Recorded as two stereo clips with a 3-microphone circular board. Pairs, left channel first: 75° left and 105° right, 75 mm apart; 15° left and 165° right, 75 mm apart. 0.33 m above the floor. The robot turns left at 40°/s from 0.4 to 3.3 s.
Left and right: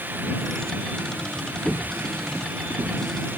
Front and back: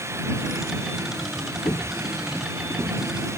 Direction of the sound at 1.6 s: Straight ahead.